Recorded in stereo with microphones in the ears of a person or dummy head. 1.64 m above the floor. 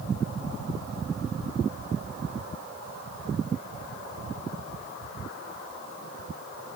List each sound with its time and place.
Only background noise.